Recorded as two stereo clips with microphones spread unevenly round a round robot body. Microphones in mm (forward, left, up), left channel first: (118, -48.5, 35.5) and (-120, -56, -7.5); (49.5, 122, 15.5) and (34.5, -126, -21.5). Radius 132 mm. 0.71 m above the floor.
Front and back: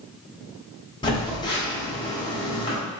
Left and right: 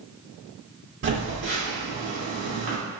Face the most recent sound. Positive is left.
turn(degrees=-75)